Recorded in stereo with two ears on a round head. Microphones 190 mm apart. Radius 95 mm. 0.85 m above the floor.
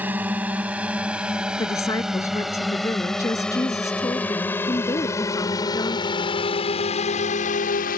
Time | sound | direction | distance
0.0 | a drone | 10° right (ahead or behind) | ?
1.6 | a woman speaking | 15° left (ahead or behind) | ?